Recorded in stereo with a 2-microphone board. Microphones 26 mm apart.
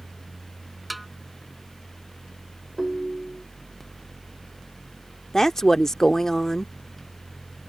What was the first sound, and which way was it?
A snare drum, 5° right (ahead or behind).